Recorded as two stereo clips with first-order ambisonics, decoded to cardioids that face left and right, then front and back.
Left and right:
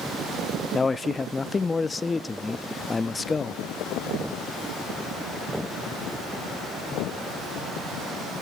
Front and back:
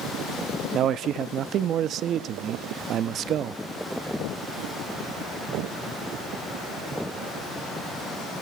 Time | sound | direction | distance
0.7 | a man speaking | 160° left | 0.5 m